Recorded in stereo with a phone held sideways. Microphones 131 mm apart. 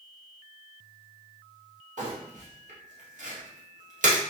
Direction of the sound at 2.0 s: 70° right (ahead or behind).